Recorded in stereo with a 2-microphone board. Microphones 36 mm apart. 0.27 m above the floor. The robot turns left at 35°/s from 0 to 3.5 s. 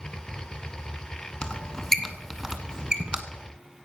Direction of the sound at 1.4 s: 30° left (ahead or behind).